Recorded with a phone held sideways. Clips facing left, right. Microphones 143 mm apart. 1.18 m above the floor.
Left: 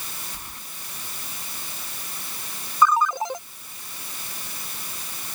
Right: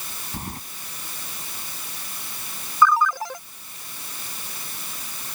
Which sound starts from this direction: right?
Keys jangling, at 0.3 s.